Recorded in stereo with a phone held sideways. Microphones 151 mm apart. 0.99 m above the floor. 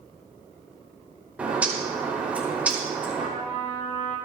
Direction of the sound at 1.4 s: 10° right (ahead or behind).